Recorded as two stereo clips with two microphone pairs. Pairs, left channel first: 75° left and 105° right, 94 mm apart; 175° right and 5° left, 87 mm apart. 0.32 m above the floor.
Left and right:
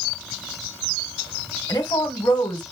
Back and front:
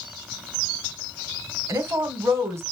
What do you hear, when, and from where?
1.7 s a woman speaking: 50° left, 1.3 m